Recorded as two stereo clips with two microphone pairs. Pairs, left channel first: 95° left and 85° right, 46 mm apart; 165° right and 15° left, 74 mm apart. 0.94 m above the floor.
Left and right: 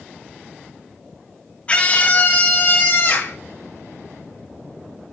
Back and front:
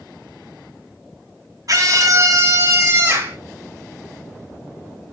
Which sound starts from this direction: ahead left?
A scream, at 1.7 s.